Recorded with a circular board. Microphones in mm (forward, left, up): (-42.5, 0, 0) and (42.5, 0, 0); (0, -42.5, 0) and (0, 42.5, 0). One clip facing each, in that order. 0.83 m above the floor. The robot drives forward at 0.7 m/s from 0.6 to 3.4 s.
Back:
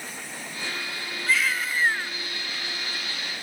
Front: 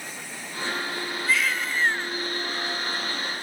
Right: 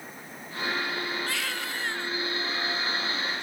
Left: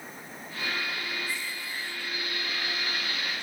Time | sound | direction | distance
1.3 | a baby crying | 90° right | ?